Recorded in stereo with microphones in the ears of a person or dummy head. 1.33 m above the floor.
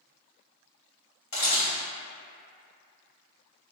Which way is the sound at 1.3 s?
45° left (ahead or behind).